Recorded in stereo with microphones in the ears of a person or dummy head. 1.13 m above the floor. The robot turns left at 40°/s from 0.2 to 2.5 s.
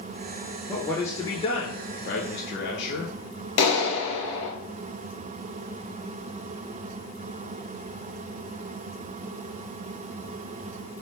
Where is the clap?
80° left, 1.1 m.